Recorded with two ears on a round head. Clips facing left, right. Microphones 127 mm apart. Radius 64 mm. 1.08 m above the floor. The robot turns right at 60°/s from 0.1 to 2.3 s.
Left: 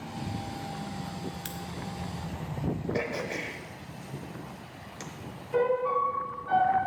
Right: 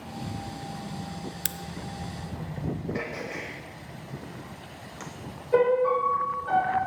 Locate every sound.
1.4 s a crack: 55° right (ahead or behind), 0.5 m
2.9 s throat clearing: 35° left (ahead or behind), 1.1 m
5.5 s a piano: 70° right (ahead or behind), 3.5 m